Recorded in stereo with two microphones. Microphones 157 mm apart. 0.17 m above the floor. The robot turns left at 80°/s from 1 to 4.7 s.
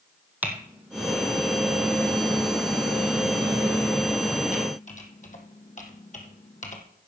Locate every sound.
0.4 s typing on a keyboard: 10° right (ahead or behind), 1.3 m; by 6.8 s 55° left (ahead or behind), 1.3 m